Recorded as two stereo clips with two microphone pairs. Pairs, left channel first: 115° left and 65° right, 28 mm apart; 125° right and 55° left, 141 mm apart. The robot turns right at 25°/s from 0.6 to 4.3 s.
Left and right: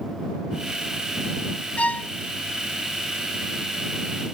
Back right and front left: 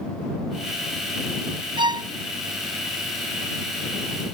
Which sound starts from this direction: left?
A violin, at 1.8 s.